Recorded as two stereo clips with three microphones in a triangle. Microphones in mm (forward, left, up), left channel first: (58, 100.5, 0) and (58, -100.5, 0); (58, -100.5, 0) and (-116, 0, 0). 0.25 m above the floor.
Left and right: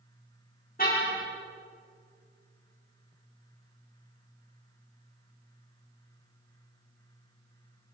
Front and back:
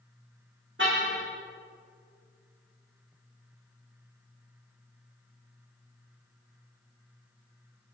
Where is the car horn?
135° left, 7.5 m.